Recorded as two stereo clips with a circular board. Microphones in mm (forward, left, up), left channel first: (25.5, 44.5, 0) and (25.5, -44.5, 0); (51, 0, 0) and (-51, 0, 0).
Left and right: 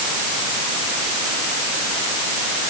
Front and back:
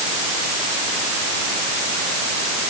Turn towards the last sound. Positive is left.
No sound to turn to.